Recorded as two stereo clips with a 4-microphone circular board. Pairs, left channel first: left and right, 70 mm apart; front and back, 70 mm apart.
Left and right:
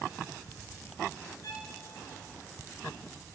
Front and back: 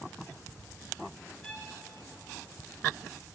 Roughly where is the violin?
Left.